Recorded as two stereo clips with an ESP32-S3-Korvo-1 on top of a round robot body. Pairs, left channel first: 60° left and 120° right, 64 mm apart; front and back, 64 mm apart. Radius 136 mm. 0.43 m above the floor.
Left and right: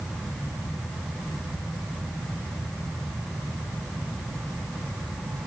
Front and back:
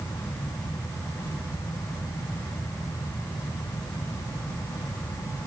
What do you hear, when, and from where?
Only background noise.